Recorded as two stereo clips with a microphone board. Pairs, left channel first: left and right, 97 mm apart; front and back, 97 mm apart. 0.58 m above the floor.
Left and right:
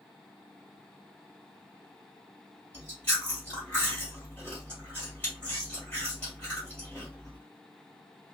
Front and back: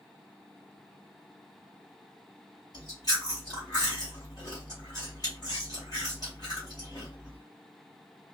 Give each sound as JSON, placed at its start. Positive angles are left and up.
{"t": 2.7, "sound": "chewing", "azimuth_deg": 25, "distance_m": 1.6}